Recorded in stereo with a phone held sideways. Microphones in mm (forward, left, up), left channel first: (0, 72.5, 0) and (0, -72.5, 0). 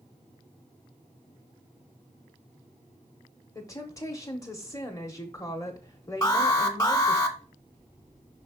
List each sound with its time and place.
3.5 s a woman speaking: 20° left (ahead or behind), 1.0 m
6.2 s an alarm: 25° left (ahead or behind), 1.1 m